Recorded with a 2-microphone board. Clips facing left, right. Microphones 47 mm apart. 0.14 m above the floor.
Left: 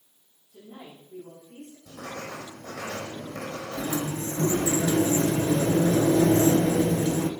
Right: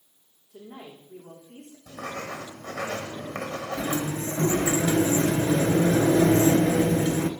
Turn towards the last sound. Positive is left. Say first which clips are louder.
# even
turn(degrees=-50)  # may be behind; listen again after turning